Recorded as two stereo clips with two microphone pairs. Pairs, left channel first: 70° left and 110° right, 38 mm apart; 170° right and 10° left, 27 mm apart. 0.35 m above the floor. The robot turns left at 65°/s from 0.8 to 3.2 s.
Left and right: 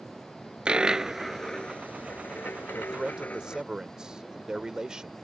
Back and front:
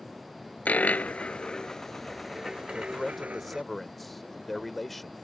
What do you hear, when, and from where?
0.7 s a dropped coin: 175° right; by 3.6 s 30° left
2.8 s a man speaking: 65° right; by 5.1 s 95° right